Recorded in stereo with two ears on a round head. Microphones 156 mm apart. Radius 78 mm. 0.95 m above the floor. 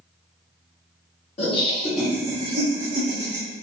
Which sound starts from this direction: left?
Laughter, at 1.4 s.